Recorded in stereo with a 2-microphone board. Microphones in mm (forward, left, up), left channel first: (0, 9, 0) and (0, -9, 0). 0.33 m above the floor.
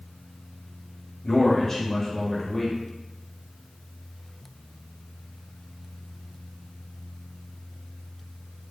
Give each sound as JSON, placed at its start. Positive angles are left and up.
{"t": 1.2, "sound": "a man speaking", "side_deg": 20, "distance_m": 1.0}